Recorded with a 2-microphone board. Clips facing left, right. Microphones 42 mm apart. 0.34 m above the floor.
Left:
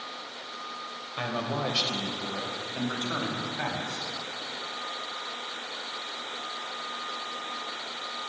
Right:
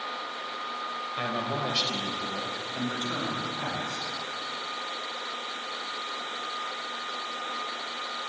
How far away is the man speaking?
About 1.2 m.